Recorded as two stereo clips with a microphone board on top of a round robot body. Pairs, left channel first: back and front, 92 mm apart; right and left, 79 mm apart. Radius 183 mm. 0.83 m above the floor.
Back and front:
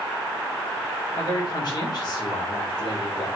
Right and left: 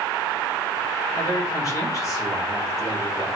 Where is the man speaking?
140° right, 2.5 m.